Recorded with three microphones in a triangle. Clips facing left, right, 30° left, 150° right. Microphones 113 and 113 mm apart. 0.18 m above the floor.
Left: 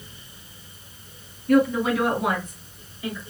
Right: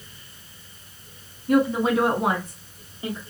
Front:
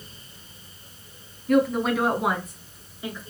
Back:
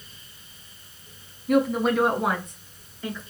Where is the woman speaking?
80° right, 1.1 m; by 3.2 s 45° right, 2 m.